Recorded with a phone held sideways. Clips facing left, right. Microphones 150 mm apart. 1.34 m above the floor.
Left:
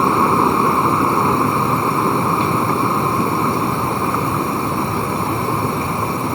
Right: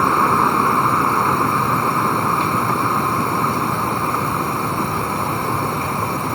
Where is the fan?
25° left (ahead or behind).